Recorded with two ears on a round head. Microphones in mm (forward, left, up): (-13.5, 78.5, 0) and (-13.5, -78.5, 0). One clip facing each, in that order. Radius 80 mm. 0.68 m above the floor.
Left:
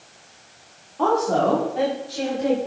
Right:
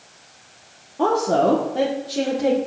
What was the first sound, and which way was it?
A woman speaking, 25° right (ahead or behind).